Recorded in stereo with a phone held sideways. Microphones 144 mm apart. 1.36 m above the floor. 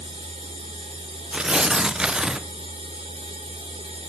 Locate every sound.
0.0 s a machine running: 40° right (ahead or behind), 4.5 m
1.3 s tearing paper: 5° right (ahead or behind), 0.6 m